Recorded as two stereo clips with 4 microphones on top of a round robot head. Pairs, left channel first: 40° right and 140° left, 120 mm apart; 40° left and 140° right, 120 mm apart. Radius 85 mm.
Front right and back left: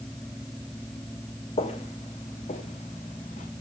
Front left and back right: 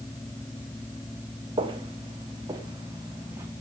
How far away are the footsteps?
About 1.9 m.